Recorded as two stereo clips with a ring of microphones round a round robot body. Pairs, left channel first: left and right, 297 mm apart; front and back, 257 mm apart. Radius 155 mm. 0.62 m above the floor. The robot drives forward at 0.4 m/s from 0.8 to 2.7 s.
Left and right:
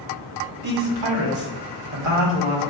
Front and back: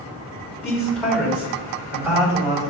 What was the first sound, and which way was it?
A man speaking, 85° right.